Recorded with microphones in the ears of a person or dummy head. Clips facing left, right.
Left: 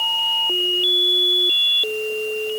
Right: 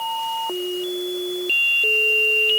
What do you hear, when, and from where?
Only background noise.